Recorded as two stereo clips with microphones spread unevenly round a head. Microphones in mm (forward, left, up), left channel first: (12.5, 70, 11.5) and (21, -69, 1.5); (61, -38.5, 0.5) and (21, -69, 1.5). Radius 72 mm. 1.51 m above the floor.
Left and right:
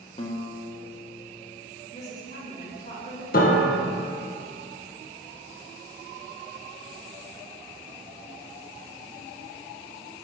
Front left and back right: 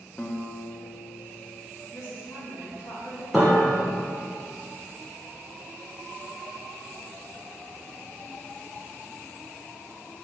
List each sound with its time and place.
0.2 s a guitar: 95° left, 0.9 m
1.9 s a woman speaking: 50° left, 3 m
3.3 s a piano: 125° left, 1.1 m